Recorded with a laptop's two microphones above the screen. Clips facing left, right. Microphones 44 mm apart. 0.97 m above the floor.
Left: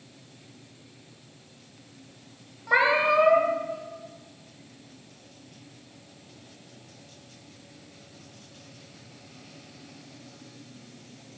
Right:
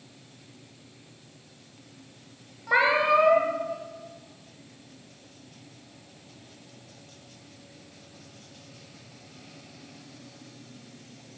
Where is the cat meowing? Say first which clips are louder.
Even; centre (ahead or behind), 0.9 m.